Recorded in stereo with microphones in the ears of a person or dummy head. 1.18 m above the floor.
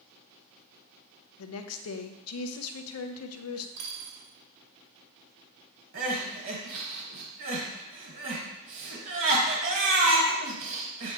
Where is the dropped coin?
80° right, 2.5 m.